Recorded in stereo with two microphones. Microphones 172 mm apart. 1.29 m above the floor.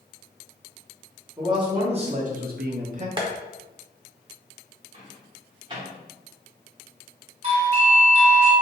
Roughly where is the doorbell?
Right.